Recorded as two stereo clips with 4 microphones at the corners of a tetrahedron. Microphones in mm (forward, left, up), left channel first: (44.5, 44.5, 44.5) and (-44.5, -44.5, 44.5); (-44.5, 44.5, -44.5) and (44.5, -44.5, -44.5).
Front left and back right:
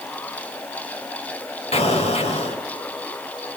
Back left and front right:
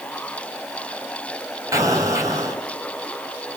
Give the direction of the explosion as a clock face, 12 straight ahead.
11 o'clock.